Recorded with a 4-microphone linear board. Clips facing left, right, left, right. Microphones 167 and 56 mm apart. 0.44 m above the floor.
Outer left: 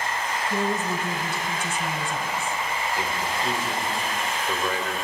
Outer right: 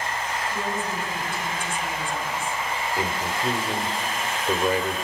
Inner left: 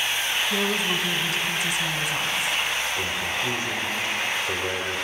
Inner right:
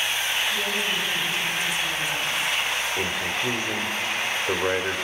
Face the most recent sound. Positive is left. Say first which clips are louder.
# outer right 1 dB, inner right 1 dB
turn(degrees=-35)  # may be behind; listen again after turning